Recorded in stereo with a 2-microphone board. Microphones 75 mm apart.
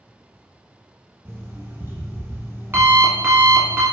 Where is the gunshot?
No gunshot in this recording.